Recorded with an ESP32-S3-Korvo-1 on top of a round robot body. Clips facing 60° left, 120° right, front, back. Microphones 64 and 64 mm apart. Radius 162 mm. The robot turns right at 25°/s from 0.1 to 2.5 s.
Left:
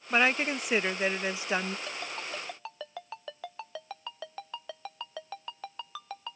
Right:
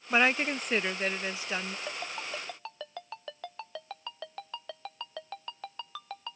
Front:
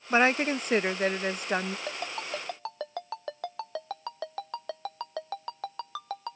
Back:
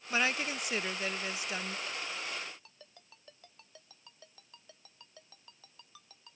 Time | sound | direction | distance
0.1 | a woman speaking | 35° right | ?
1.9 | a ringtone | 45° right | ?